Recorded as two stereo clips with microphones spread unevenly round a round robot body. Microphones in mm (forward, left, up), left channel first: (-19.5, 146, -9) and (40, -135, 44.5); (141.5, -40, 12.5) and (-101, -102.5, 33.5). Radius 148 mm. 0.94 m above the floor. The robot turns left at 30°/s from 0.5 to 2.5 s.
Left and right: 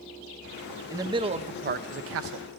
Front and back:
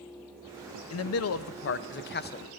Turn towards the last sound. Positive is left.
turn(degrees=-40)